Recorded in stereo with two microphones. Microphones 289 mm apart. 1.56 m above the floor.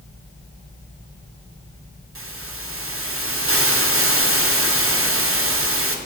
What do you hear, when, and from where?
2.1 s a hiss: 45° right (ahead or behind), 0.8 m